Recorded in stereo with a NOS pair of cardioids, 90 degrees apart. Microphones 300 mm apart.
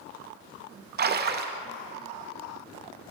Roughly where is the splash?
Ahead right.